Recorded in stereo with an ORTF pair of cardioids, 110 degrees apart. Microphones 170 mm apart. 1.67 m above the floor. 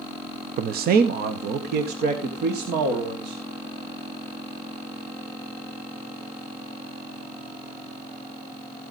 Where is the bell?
No bell in this recording.